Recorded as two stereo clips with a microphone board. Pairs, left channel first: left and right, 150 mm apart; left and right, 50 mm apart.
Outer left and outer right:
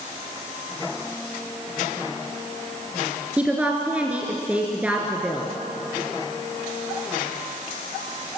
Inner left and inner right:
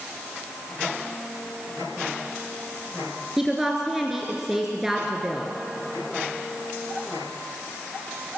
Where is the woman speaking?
10° right (ahead or behind), 2 m.